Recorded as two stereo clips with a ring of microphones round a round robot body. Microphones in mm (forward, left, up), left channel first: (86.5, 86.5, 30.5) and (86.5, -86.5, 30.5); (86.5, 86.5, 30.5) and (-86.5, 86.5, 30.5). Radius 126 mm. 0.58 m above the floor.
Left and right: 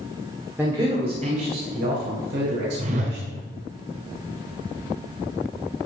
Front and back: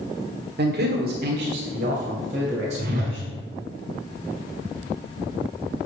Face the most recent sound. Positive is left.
turn(degrees=-140)